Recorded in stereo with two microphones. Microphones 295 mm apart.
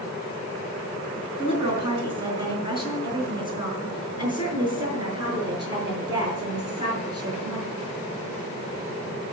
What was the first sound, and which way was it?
A woman speaking, 15° right (ahead or behind).